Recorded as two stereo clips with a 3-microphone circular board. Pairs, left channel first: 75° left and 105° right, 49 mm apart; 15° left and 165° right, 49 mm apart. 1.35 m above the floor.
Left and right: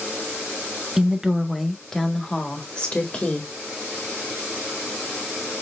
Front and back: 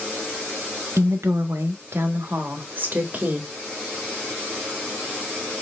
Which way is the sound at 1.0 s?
Straight behind.